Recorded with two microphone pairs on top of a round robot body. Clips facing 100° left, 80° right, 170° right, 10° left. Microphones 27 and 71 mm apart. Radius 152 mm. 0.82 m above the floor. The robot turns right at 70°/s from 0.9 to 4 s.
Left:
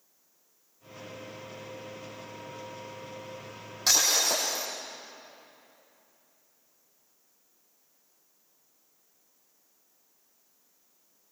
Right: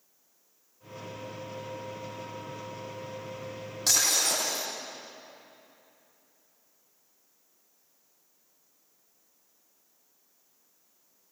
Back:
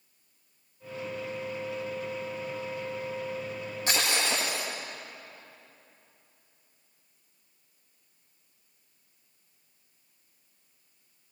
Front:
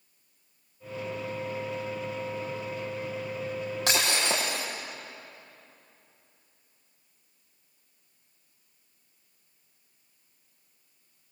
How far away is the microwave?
I don't hear a microwave.